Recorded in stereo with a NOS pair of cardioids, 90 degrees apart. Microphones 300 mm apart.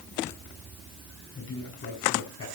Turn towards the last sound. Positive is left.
turn(degrees=45)